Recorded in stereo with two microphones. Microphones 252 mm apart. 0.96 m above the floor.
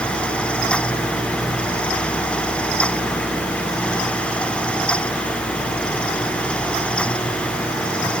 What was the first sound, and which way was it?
Only background noise.